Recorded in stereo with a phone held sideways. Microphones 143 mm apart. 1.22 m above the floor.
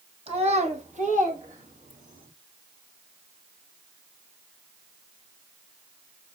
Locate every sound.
0.3 s a child speaking: 45° right (ahead or behind), 1.2 m; by 2.3 s 70° right (ahead or behind), 2.5 m